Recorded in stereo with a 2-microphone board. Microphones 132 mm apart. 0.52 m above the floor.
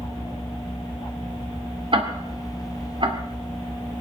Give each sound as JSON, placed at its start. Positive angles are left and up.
{"t": 1.9, "sound": "ticking", "side_deg": -45, "distance_m": 1.8}